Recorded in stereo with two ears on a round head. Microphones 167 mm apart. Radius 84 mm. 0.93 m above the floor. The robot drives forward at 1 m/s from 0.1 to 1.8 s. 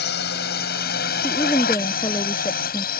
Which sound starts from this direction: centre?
A woman speaking, at 1.2 s.